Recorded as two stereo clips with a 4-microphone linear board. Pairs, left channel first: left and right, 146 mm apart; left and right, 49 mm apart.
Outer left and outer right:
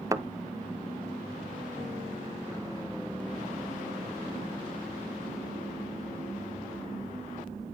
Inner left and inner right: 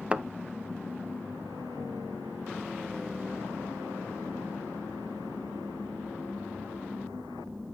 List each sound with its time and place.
0.1 s a thud: 20° right (ahead or behind), 0.6 m